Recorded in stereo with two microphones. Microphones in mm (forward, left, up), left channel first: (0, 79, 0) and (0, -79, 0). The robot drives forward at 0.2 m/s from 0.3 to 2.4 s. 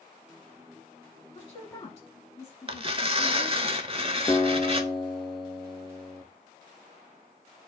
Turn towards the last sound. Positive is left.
turn(degrees=0)  # may be behind; listen again after turning